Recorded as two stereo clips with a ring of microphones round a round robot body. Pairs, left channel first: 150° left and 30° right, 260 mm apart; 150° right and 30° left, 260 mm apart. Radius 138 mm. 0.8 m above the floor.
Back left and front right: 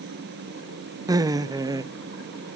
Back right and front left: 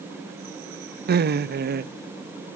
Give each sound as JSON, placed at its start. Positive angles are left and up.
{"t": 1.1, "sound": "laughter", "azimuth_deg": 35, "distance_m": 1.1}